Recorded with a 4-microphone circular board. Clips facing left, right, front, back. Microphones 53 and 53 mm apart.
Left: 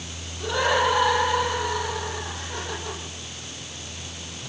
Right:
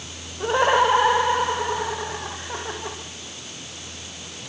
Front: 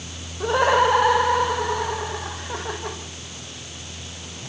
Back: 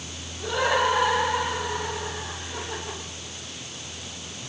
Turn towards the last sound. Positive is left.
turn(degrees=-25)